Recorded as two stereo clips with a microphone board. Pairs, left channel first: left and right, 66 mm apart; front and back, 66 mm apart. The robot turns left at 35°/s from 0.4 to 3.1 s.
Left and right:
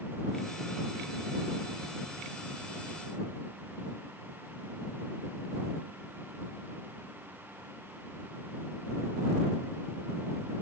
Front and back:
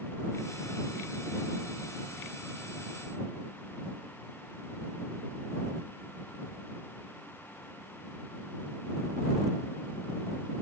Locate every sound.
Only background noise.